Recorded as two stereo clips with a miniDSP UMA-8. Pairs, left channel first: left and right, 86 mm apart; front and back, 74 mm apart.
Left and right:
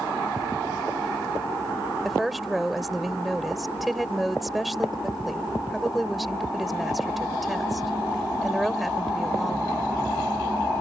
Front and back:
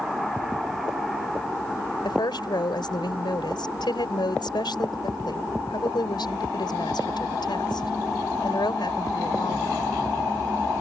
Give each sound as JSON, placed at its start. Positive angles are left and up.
{"t": 2.0, "sound": "a woman speaking", "azimuth_deg": 0}